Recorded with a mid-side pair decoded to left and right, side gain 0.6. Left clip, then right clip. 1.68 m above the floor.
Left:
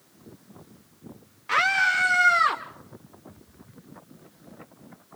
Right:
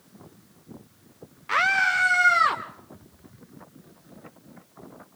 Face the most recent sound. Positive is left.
turn(degrees=-10)